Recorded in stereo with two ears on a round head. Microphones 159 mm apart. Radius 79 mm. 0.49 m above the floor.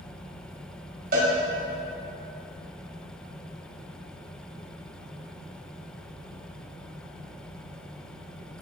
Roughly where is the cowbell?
Right.